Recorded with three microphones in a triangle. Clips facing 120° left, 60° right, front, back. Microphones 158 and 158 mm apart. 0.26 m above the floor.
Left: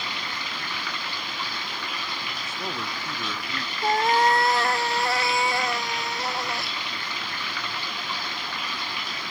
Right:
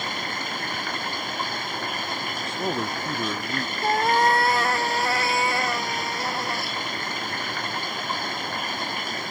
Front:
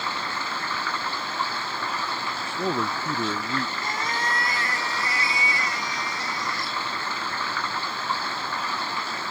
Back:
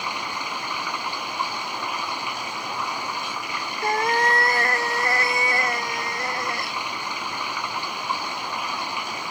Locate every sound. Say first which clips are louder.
0.0 s running water: right 4 dB, even; 105° right
2.5 s a man speaking: right 7 dB, front 5 dB; 5° left
3.8 s a cat meowing: even, back 7 dB; 150° right